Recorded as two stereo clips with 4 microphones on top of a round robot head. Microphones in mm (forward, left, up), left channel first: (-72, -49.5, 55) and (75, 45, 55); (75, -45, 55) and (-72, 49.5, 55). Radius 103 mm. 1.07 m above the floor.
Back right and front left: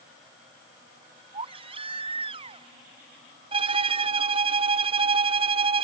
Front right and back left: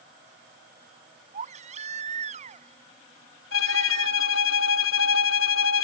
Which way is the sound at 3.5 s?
30° right.